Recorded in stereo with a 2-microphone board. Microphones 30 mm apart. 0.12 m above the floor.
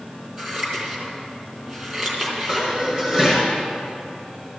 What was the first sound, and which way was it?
Scissors, 30° right (ahead or behind).